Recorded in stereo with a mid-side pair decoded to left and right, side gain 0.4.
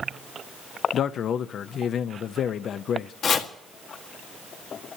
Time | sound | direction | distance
0.9 | a man speaking | 65° left | 0.7 m
3.2 | chopping | 60° left | 1.6 m